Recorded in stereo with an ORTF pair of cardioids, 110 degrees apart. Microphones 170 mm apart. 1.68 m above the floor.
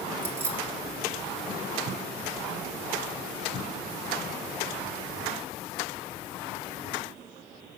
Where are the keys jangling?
15° right, 3 m.